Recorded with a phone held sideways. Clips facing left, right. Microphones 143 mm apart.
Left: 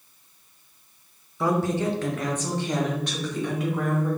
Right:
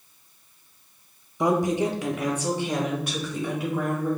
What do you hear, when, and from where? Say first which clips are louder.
1.4 s a woman speaking: right 2 dB; 15° right (ahead or behind), 0.6 m; by 4.1 s 5° right (ahead or behind), 2.5 m